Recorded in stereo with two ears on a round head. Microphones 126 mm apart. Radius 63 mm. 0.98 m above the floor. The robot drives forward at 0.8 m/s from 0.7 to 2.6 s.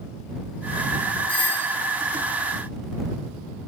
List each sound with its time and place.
1.3 s a doorbell: 15° left (ahead or behind), 3 m